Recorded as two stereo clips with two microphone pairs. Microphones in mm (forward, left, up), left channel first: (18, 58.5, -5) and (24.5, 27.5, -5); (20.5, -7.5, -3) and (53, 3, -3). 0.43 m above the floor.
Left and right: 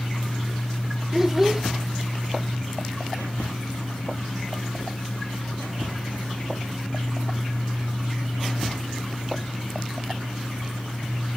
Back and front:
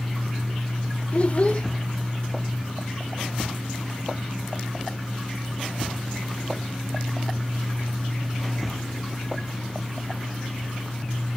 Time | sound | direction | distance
1.1 | a child speaking | 160° right | 0.6 m